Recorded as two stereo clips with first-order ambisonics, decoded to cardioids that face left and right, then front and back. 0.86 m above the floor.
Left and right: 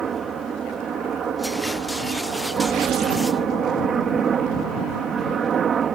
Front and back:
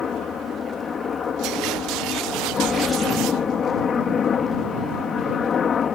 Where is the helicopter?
45° right.